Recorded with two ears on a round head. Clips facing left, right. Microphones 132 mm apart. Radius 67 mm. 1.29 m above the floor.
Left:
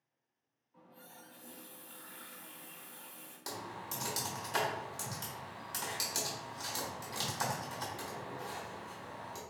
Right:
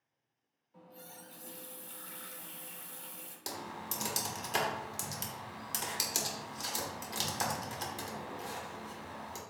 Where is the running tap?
45° right (ahead or behind), 0.6 m.